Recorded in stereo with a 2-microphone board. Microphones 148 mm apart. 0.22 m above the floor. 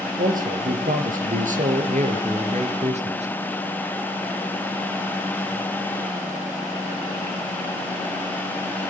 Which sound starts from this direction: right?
A man speaking, at 0.2 s.